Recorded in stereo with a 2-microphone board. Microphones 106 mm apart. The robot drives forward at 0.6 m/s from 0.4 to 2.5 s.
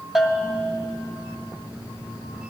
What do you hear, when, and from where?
0.1 s a bell: 5° right (ahead or behind), 0.6 m; by 0.8 s centre (ahead or behind), 0.8 m